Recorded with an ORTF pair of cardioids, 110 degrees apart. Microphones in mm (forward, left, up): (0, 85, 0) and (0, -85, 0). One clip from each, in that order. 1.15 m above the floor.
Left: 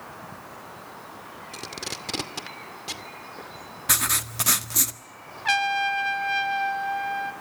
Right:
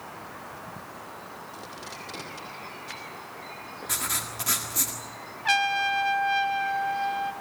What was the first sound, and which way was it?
Tape being pulled, 65° left.